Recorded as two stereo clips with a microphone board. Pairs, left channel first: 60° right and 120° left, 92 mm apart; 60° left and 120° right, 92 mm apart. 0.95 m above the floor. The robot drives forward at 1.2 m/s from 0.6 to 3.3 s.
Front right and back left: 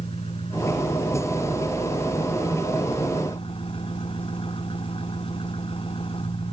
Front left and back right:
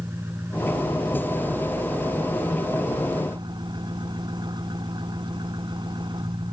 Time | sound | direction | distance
0.0 | an engine running | 55° right | ?